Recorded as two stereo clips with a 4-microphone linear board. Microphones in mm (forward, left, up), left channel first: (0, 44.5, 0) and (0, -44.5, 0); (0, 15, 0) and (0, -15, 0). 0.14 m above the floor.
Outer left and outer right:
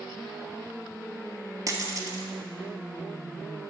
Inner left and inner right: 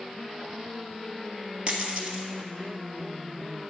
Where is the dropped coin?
40° right (ahead or behind), 1.4 m.